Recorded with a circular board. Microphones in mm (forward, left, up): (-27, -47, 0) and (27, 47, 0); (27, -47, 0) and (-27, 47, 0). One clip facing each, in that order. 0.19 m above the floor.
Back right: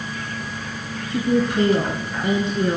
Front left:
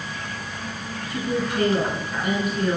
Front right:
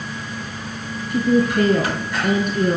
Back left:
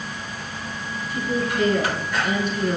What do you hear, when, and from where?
1.1 s a woman speaking: 60° right, 2 m